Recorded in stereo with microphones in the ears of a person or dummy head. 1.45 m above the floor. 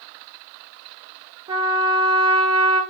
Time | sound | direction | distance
1.5 | a trumpet | 25° right (ahead or behind) | 0.6 m